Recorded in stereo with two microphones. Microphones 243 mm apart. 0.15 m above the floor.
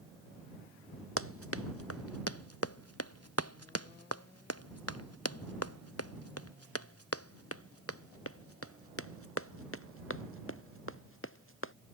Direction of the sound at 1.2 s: 65° left (ahead or behind).